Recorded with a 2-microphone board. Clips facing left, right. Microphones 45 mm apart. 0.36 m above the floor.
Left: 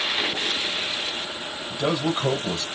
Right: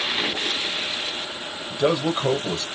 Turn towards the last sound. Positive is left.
turn(degrees=-25)  # may be behind; listen again after turning